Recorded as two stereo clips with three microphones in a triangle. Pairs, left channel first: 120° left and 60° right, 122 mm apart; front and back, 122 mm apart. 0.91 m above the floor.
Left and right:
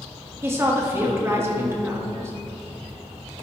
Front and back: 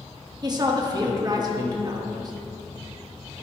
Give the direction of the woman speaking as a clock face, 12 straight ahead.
4 o'clock.